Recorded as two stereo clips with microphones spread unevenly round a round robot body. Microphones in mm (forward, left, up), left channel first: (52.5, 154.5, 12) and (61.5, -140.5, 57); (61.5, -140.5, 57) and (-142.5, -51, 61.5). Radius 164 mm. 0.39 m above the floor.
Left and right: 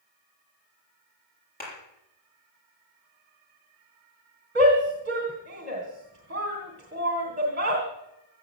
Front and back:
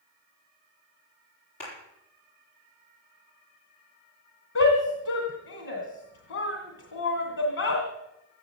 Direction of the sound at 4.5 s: 30° right.